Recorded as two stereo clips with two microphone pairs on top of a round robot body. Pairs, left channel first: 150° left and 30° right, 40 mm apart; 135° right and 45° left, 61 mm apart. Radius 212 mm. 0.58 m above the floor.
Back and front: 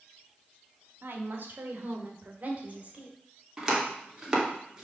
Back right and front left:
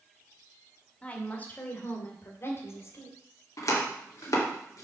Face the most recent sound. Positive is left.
turn(degrees=-105)